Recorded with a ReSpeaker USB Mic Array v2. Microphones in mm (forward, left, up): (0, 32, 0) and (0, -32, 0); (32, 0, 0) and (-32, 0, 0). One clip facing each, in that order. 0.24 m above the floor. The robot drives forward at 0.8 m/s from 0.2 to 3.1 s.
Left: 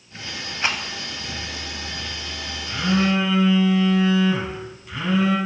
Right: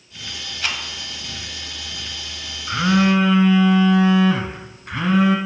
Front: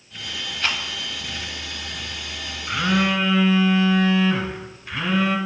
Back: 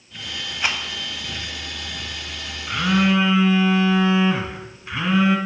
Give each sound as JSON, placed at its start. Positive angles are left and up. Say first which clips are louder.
{"t": 0.6, "sound": "a rattle", "louder": "left 2 dB, back 1 dB", "azimuth_deg": 115, "distance_m": 0.5}
{"t": 2.7, "sound": "a phone buzzing", "louder": "right 4 dB, back 2 dB", "azimuth_deg": -85, "distance_m": 1.0}